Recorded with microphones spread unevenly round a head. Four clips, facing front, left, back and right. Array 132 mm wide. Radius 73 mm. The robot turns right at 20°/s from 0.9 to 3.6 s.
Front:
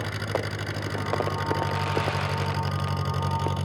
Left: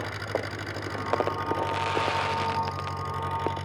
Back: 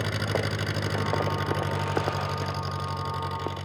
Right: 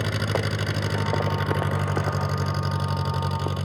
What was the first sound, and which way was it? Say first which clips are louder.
An engine running: right 4 dB, back 1 dB; 105° right.